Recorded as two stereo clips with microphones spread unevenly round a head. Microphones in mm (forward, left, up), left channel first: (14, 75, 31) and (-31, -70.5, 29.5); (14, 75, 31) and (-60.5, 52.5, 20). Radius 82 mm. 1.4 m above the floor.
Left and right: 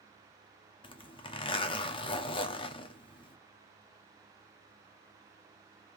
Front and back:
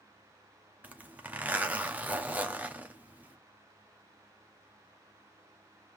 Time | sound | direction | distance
0.8 | a zipper | 130° left | 1.0 m